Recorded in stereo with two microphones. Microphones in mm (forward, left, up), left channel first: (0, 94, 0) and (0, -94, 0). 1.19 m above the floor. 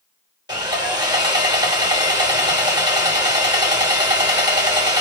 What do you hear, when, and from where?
0.5 s sawing: 20° right (ahead or behind), 1.1 m